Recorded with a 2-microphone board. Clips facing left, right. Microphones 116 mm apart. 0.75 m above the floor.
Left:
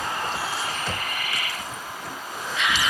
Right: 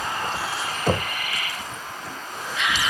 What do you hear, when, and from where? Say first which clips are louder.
0.9 s knocking: right 7 dB; 60° right (ahead or behind)